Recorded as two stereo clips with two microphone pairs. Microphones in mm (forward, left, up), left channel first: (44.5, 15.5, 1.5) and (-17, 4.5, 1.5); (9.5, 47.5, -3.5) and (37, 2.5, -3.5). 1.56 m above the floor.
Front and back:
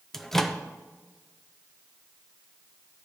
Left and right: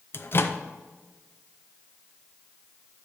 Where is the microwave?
90° left, 0.6 m.